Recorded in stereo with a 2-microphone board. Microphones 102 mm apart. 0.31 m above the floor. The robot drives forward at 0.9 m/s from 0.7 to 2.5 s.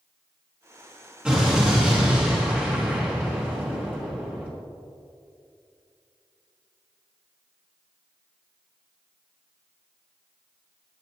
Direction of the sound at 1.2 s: 10° right (ahead or behind).